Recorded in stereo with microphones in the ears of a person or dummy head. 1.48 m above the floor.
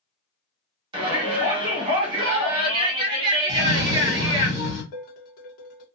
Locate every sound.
0.9 s a shout: 30° right (ahead or behind), 1.3 m
3.5 s a cough: 30° right (ahead or behind), 0.8 m
4.9 s dishes clattering: 55° left (ahead or behind), 0.9 m